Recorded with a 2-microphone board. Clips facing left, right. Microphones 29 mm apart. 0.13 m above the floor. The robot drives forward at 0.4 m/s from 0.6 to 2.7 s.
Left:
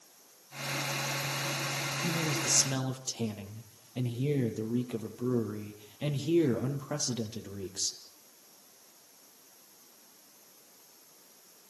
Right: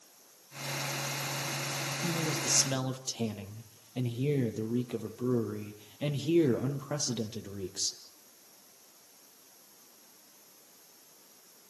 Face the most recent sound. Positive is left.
turn(degrees=-20)  # may be behind; listen again after turning